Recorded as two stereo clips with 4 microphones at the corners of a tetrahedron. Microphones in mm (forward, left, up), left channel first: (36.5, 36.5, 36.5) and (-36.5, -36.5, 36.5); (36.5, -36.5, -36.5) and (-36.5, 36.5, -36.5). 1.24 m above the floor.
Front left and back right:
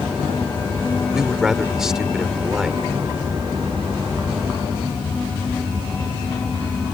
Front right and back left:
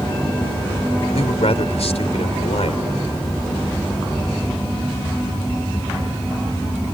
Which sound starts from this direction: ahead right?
A man speaking, at 1.1 s.